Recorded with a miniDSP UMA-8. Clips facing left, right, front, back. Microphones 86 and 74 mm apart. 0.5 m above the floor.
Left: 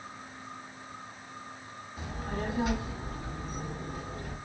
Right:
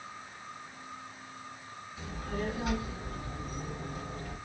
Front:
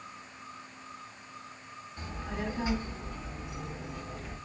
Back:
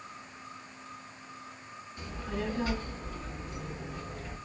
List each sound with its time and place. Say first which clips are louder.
2.0 s a child speaking: left 1 dB, back 1 dB; 55° left, 1.3 m; by 4.3 s 85° left, 3.5 m